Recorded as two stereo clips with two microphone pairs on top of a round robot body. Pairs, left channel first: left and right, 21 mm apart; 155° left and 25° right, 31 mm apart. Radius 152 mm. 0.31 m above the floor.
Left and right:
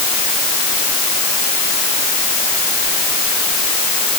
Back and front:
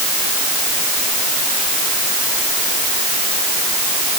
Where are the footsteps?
I don't hear footsteps.